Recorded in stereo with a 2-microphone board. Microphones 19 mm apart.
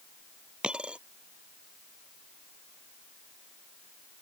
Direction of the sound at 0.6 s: 70° right (ahead or behind).